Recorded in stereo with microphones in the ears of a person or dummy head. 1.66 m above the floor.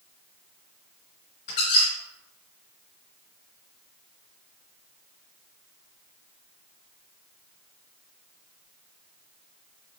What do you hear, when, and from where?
1.5 s a squeak: 40° left (ahead or behind), 2.0 m